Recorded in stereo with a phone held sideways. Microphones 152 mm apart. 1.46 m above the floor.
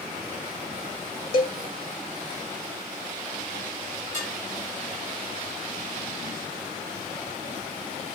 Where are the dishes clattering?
55° left (ahead or behind), 4 m.